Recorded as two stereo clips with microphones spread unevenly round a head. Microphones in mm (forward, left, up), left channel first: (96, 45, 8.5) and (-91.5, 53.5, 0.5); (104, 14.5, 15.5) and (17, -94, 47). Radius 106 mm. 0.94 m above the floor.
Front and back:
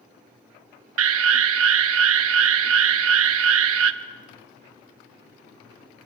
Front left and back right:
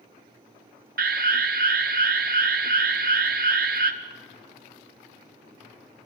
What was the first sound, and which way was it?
An alarm, 175° right.